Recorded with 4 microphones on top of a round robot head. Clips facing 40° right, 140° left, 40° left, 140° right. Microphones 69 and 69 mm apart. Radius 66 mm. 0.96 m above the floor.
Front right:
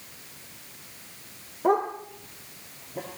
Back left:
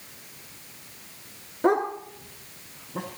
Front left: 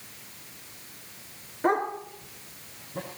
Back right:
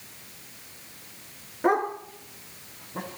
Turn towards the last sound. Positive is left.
turn(degrees=160)